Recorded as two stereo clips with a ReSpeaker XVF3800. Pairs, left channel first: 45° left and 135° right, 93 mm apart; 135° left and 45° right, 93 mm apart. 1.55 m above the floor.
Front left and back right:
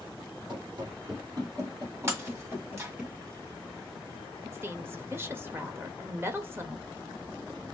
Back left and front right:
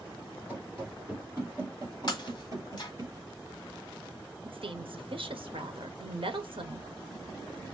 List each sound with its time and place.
0.5 s running footsteps: 115° right, 2.5 m; by 3.1 s 60° right, 1.9 m
2.1 s breaking glass: 170° left, 1.1 m
4.5 s a woman speaking: 70° right, 1.0 m